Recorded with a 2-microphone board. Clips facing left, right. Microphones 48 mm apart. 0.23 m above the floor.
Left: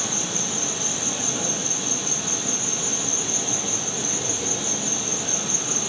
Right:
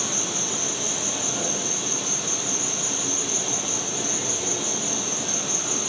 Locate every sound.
0.0 s an insect: 15° left (ahead or behind), 3.5 m